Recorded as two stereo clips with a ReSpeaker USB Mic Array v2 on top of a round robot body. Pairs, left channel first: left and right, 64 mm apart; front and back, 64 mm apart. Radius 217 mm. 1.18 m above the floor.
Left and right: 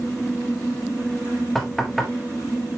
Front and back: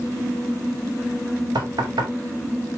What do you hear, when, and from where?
1.6 s knocking: 175° left, 1.6 m